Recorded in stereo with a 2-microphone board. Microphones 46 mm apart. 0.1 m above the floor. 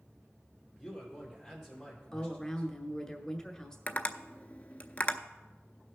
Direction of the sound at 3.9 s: 35° left (ahead or behind).